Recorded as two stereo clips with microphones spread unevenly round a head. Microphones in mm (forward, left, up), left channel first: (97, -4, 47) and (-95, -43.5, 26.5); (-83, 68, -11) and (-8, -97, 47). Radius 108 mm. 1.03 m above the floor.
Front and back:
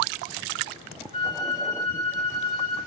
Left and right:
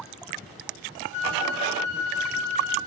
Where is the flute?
75° left, 7 m.